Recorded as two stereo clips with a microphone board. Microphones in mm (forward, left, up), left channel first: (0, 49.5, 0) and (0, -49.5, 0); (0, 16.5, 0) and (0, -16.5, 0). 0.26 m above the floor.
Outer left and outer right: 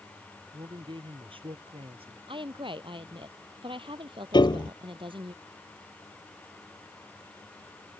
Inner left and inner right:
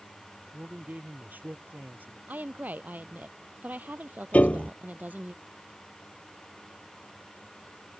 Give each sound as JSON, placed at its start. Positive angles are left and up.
{"t": 0.5, "sound": "a man speaking", "side_deg": -55}
{"t": 2.3, "sound": "a woman speaking", "side_deg": -55}
{"t": 4.3, "sound": "a piano", "side_deg": 45}